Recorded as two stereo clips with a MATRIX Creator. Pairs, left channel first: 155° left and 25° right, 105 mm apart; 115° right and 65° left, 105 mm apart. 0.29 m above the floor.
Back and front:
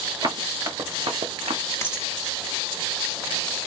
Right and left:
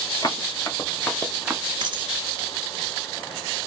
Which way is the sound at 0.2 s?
65° right.